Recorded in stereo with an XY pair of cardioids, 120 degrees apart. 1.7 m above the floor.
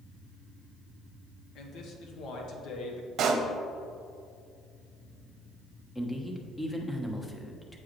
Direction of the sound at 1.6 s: 65° left.